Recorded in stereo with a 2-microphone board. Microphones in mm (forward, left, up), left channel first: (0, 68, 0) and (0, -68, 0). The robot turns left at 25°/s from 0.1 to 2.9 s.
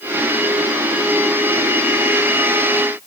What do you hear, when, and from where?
Only background noise.